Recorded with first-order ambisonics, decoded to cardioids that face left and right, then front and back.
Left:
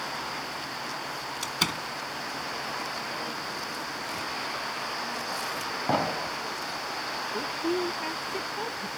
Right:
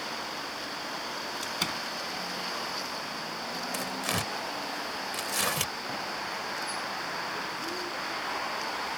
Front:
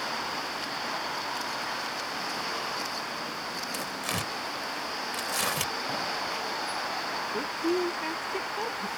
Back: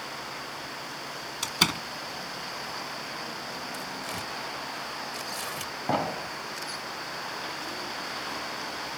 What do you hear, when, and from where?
1.4 s a door slam: 165° left
3.7 s tearing paper: 60° right
5.9 s an explosion: 130° left
7.3 s a woman speaking: 35° left